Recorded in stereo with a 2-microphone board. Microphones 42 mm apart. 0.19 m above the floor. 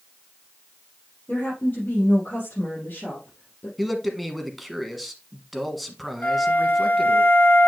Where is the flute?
50° left (ahead or behind), 1.0 m.